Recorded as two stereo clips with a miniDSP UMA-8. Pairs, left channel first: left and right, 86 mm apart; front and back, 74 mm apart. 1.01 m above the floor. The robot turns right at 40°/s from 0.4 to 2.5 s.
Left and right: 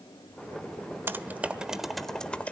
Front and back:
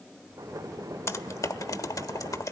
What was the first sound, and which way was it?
Typing on a keyboard, 35° right.